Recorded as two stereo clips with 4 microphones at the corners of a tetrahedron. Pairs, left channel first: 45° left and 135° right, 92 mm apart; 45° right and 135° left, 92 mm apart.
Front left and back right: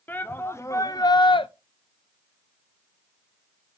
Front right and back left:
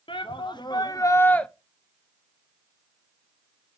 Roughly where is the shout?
Ahead right.